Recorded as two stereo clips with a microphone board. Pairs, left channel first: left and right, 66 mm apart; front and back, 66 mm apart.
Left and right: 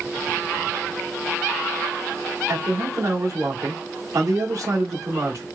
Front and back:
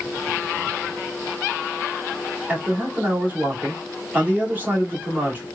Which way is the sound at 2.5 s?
120° right.